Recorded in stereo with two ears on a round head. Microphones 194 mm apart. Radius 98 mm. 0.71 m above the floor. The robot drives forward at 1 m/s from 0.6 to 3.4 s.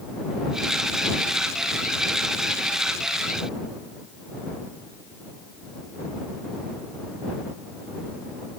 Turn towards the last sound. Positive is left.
No sound to turn to.